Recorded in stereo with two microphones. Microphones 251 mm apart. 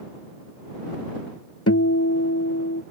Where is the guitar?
75° left (ahead or behind).